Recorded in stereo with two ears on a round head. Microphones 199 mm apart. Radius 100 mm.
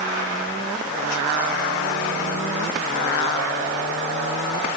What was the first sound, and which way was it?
Only background noise.